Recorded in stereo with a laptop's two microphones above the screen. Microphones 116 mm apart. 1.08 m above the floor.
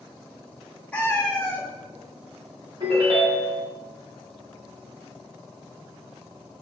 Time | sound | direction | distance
0.9 | a cat meowing | 10° left (ahead or behind) | 0.7 m
2.8 | a ringtone | 50° right (ahead or behind) | 1.6 m